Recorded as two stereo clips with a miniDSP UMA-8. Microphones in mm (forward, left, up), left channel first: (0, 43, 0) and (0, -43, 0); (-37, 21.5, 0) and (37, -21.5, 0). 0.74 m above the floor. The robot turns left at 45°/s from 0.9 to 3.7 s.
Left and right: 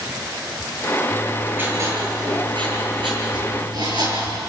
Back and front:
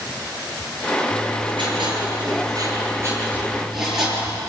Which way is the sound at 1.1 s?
Straight ahead.